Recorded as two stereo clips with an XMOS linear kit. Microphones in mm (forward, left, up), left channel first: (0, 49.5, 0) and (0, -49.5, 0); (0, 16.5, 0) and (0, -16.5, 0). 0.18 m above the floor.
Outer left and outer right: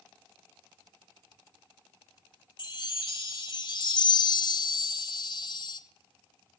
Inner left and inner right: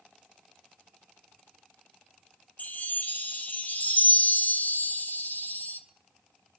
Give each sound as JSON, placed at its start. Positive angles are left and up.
{"t": 2.6, "sound": "a chime", "side_deg": 55, "distance_m": 1.3}